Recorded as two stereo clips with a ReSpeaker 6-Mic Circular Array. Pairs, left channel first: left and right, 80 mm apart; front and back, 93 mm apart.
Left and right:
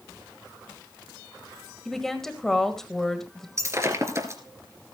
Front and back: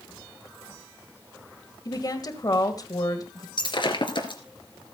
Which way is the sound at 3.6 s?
35° right.